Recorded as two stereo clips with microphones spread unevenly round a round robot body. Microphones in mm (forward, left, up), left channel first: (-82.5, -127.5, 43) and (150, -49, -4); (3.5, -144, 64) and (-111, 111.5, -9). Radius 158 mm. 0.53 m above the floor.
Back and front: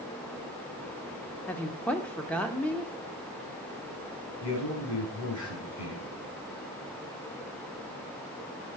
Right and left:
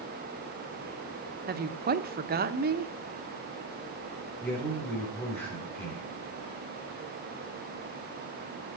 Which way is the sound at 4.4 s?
150° right.